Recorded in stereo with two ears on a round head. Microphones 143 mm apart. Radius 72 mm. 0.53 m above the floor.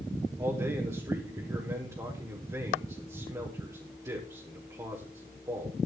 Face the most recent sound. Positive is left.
turn(degrees=-20)  # may be behind; listen again after turning